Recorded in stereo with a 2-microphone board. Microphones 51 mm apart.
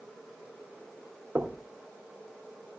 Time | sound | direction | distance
1.4 | knocking | 40° right (ahead or behind) | 1.3 m